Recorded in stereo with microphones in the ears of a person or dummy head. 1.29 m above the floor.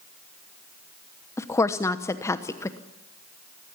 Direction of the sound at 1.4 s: 15° left (ahead or behind).